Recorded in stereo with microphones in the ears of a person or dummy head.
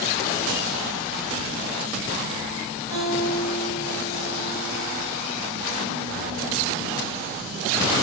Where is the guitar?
20° right (ahead or behind), 2 m.